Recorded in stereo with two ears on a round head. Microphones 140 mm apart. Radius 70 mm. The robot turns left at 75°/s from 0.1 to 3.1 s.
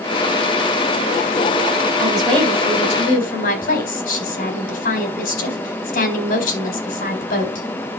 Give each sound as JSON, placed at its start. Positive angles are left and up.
{"t": 2.0, "sound": "a woman speaking", "azimuth_deg": -160, "distance_m": 4.5}